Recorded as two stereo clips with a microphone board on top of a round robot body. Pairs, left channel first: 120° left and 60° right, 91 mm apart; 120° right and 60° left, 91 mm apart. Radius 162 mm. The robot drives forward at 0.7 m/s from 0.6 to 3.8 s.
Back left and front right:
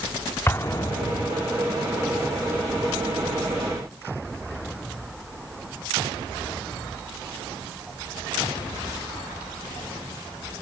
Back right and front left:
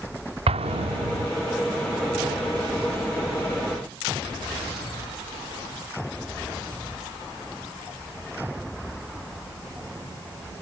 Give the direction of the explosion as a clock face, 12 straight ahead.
10 o'clock.